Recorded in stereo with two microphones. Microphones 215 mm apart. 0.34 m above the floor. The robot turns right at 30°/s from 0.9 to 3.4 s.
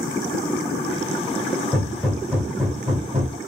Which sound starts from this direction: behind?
Hammering, at 1.7 s.